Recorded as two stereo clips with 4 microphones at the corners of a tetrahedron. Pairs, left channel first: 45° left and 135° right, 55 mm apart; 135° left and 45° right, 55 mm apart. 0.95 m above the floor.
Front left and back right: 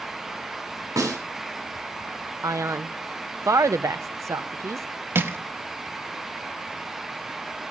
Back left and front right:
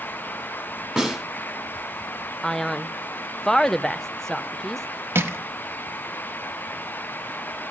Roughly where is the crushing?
Right.